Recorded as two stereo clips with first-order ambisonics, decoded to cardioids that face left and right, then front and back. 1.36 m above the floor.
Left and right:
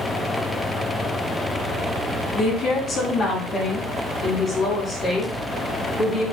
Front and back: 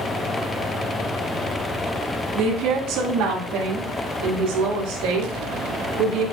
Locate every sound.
2.4 s a woman speaking: 145° left, 1.7 m; by 6.2 s 160° left, 4 m